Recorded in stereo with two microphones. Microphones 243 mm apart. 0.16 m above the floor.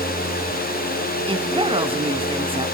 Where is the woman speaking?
20° right (ahead or behind), 1.7 m.